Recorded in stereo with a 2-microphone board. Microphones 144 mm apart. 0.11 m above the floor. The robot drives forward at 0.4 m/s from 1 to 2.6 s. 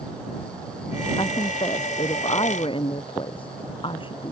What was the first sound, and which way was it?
A woman speaking, 35° left (ahead or behind).